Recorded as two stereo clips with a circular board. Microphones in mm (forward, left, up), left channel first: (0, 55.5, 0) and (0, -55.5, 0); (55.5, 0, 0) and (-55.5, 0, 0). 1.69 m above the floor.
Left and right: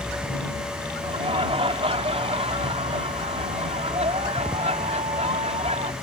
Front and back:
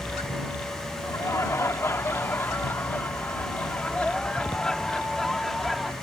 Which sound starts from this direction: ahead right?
Laughter, at 1.0 s.